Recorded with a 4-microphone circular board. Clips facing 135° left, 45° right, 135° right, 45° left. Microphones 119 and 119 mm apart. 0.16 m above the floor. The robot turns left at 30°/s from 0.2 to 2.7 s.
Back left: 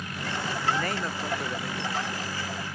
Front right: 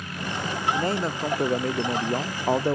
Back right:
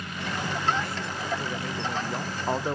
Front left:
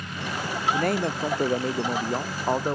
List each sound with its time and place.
0.7 s a man speaking: 25° left; by 2.8 s 35° right